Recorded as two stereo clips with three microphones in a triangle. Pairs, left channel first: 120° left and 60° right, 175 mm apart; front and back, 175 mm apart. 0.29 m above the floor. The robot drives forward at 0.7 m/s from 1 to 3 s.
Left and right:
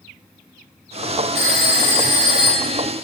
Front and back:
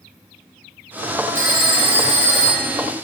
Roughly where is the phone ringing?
Left.